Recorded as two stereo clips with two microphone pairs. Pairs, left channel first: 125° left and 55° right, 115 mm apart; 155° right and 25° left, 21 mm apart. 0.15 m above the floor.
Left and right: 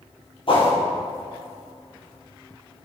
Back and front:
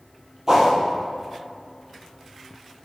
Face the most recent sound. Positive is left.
turn(degrees=85)